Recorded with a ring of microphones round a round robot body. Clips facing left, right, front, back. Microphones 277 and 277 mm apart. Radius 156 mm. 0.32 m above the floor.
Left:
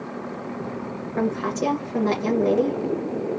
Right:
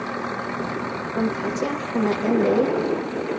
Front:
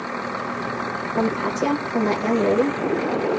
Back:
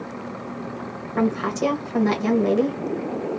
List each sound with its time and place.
1.2 s a woman speaking: 170° left, 1.2 m